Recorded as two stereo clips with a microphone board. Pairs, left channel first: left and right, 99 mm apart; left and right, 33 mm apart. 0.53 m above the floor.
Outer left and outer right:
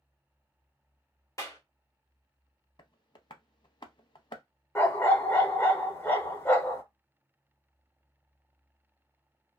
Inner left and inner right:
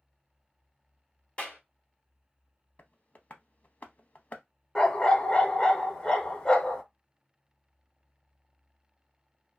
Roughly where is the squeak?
I don't hear a squeak.